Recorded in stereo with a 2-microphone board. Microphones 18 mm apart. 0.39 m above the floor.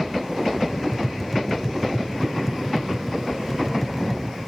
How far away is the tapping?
About 0.7 m.